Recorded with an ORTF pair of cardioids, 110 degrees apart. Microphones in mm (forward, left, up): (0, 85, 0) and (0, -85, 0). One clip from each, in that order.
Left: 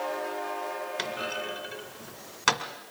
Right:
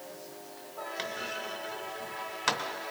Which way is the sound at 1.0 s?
20° left.